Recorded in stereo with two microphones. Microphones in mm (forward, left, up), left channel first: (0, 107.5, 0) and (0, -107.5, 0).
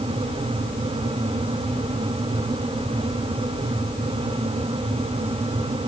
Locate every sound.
Only background noise.